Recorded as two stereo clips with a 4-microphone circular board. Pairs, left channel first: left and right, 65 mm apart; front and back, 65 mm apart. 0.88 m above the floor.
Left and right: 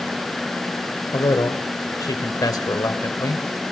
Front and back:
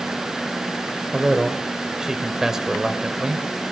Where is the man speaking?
100° left, 3 m.